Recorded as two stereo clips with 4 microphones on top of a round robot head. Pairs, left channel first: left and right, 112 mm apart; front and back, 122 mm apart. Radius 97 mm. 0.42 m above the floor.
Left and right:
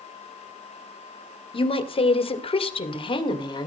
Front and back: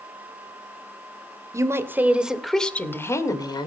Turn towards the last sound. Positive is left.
turn(degrees=45)